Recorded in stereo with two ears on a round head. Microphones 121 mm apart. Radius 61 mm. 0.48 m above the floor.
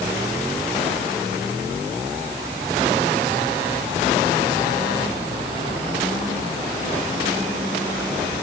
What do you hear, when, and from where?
Only background noise.